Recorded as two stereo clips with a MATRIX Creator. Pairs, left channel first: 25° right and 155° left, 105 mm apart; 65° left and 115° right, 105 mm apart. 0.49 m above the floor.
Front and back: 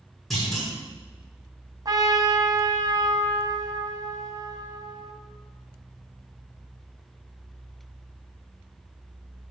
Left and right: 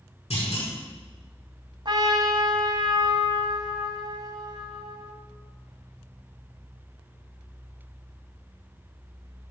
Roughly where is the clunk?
Ahead left.